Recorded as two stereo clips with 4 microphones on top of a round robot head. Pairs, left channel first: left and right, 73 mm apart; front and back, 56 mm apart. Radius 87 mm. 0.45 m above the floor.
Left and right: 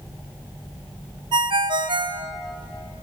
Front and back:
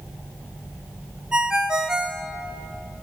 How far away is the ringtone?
About 0.7 m.